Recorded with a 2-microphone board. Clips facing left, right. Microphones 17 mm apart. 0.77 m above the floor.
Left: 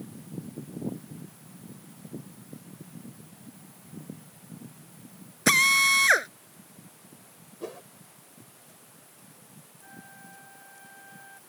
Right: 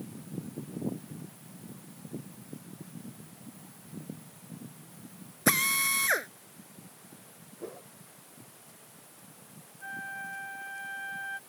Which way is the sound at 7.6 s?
75° left (ahead or behind).